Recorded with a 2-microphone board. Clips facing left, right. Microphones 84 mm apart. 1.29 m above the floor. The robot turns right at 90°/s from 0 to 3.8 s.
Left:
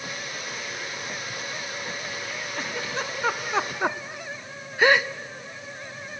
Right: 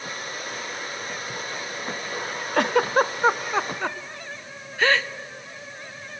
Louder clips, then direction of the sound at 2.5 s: Right 13 dB; 65° right (ahead or behind).